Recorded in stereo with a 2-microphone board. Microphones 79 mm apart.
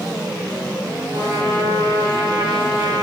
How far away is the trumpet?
About 4 m.